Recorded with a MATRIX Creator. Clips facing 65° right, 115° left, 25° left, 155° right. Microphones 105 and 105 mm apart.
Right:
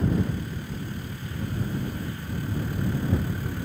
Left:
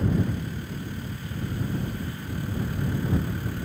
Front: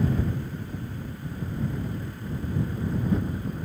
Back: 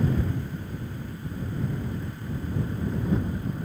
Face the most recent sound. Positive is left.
No sound to turn to.